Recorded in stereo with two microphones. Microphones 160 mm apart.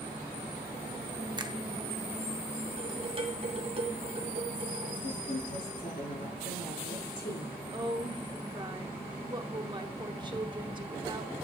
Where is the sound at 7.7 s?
30° right (ahead or behind), 0.9 m.